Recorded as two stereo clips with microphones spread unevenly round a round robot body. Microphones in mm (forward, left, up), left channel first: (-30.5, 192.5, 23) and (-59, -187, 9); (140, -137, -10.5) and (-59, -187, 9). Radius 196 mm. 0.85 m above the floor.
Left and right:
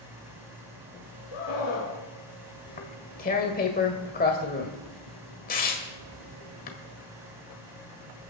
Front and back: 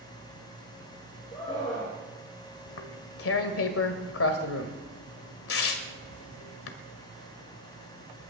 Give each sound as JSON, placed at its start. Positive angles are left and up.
{"t": 1.3, "sound": "a scream", "azimuth_deg": 85, "distance_m": 3.0}
{"t": 2.7, "sound": "tearing paper", "azimuth_deg": 15, "distance_m": 1.6}